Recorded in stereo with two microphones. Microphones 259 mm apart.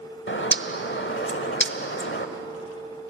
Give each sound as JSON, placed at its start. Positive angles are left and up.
{"t": 0.3, "sound": "a bird", "side_deg": 45, "distance_m": 1.2}